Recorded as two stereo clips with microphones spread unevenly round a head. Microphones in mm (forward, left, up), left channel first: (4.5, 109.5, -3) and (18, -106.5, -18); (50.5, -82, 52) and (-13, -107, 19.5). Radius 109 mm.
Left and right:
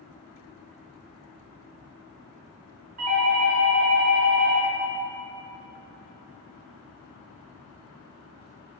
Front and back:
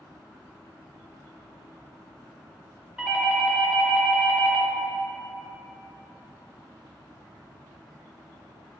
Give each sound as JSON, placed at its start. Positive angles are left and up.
{"t": 3.0, "sound": "a doorbell", "azimuth_deg": -90, "distance_m": 1.0}